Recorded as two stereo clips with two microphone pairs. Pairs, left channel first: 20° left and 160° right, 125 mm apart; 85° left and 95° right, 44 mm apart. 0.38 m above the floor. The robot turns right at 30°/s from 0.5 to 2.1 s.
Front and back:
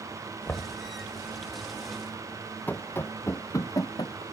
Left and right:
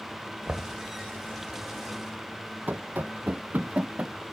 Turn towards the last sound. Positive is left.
turn(degrees=-35)